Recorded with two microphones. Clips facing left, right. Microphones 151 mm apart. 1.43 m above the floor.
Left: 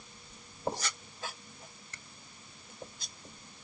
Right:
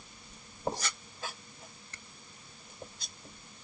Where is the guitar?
I don't hear a guitar.